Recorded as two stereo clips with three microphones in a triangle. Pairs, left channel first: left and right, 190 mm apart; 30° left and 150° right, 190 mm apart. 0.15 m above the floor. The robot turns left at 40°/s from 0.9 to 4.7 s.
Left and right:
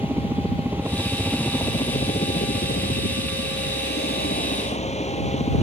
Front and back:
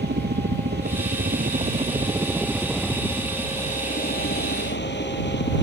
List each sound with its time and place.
0.0 s a helicopter: 170° right; by 5.7 s 40° left